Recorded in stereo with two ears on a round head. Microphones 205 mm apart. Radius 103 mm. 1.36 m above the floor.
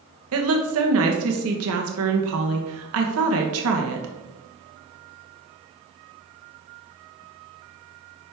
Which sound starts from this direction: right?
A woman speaking, at 0.3 s.